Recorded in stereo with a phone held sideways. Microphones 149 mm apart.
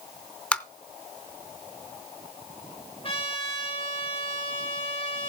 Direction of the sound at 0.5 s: 10° left (ahead or behind).